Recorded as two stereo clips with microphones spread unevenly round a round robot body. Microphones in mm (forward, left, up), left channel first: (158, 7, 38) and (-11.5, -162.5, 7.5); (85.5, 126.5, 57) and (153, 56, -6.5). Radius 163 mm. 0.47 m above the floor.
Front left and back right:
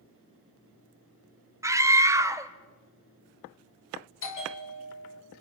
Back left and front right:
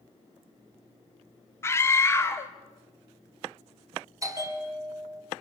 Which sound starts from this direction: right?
A scream, at 1.6 s.